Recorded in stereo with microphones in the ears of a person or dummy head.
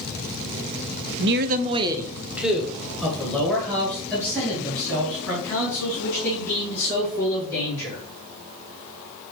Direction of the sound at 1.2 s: 55° right (ahead or behind).